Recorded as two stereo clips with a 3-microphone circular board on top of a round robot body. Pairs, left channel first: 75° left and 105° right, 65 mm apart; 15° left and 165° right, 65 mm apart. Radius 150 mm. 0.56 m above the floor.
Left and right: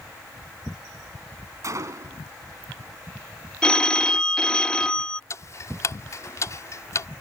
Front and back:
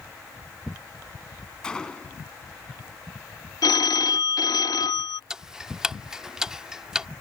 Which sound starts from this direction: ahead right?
A gunshot, at 1.6 s.